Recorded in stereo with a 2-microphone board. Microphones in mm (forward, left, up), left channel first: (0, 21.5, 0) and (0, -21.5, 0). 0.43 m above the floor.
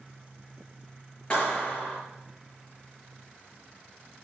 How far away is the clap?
About 6 m.